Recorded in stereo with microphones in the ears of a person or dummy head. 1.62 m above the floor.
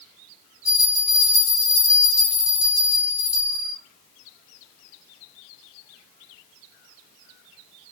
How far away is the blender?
I don't hear a blender.